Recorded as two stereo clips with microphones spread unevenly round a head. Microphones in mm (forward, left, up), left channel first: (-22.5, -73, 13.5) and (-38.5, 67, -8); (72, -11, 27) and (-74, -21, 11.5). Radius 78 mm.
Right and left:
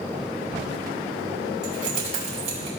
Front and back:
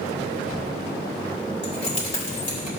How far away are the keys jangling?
About 4.5 m.